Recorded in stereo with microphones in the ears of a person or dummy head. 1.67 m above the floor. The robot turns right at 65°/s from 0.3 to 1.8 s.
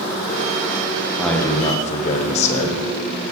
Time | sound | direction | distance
1.2 | a man speaking | straight ahead | 1.4 m